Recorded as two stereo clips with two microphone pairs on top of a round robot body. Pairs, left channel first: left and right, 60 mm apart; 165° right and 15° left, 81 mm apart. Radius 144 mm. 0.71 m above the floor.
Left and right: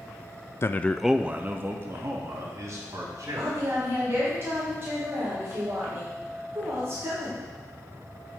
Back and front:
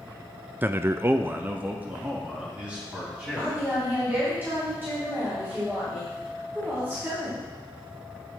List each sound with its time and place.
0.6 s a man speaking: 65° left, 0.6 m; by 3.8 s 60° right, 2.5 m
3.4 s a woman speaking: 45° right, 3.5 m